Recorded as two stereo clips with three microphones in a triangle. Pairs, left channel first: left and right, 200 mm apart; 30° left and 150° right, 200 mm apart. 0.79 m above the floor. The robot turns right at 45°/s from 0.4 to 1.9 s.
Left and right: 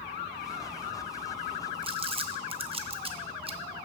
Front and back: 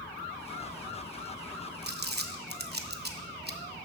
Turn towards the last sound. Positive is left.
turn(degrees=-145)